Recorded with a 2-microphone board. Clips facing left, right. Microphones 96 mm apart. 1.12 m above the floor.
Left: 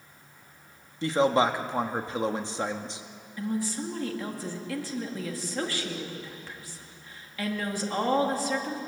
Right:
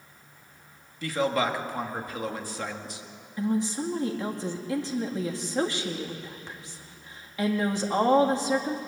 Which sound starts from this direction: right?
A woman speaking, at 3.4 s.